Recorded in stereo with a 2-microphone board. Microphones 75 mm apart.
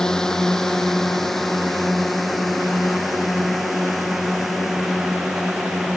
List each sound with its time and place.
0.0 s a drone: 10° left (ahead or behind); by 6.0 s 5° right (ahead or behind)